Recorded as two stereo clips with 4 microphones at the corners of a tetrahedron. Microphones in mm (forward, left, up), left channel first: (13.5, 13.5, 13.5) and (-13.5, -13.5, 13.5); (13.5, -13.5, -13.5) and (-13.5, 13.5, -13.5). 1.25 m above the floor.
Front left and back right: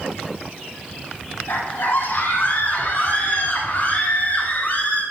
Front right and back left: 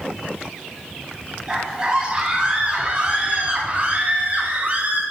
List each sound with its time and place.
1.5 s a scream: 60° left, 9.5 m; by 5.0 s 85° left, 10.5 m